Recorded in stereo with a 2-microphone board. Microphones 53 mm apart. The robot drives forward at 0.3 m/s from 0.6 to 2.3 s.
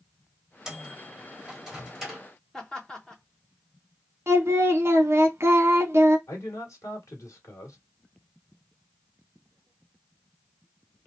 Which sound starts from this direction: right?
Singing, at 4.3 s.